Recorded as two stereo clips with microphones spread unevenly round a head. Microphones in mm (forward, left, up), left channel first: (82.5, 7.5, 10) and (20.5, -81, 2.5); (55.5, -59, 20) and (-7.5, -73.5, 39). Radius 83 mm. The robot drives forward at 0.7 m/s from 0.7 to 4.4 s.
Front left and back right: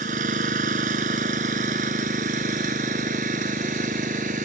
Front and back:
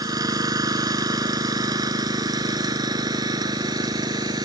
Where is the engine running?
150° right; by 4.4 s 155° right.